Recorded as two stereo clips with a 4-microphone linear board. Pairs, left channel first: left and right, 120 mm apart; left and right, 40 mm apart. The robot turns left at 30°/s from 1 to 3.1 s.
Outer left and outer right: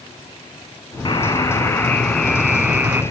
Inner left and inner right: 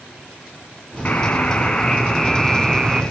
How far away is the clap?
I don't hear a clap.